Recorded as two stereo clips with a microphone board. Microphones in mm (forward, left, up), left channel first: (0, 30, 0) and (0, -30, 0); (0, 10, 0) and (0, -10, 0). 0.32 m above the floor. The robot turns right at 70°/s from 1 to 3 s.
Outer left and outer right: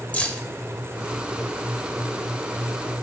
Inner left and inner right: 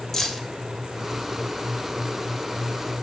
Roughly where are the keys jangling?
Left.